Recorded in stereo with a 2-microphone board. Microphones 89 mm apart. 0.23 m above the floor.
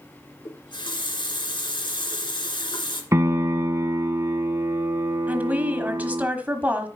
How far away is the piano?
About 0.7 m.